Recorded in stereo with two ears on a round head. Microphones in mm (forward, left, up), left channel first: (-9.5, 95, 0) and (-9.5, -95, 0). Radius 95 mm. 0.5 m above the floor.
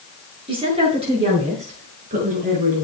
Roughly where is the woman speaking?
Right.